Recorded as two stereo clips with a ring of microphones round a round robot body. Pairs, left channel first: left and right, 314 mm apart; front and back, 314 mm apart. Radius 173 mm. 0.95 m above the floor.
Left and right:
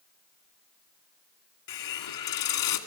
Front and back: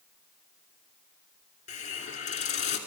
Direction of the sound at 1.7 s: 70° left.